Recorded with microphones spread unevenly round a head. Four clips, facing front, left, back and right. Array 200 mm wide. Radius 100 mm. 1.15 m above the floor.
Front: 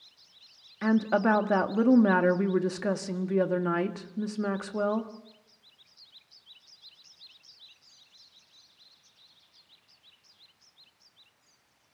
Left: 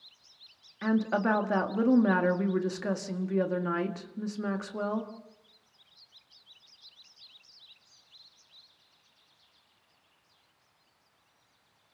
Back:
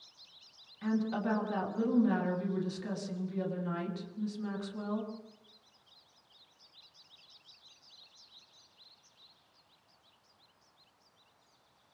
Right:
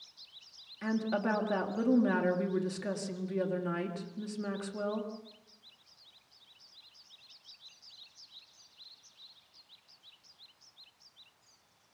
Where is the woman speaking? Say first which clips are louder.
Left 5 dB, front 8 dB; 10° left, 1.7 m.